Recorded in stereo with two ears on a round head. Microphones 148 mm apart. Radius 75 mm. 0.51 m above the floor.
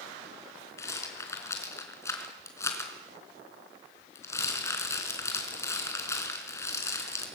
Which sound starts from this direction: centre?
A rattle, at 0.8 s.